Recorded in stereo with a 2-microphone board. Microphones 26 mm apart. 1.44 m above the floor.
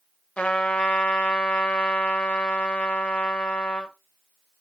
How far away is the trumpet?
About 0.7 m.